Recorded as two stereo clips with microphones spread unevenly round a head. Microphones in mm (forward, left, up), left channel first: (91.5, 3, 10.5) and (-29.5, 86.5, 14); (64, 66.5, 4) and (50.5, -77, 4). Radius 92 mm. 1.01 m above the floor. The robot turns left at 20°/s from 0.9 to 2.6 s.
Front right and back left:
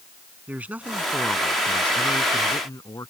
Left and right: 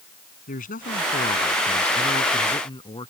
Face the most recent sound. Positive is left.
turn(degrees=30)